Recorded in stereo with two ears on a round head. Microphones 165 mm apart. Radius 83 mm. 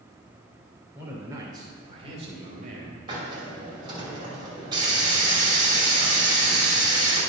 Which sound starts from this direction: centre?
A man speaking, at 0.9 s.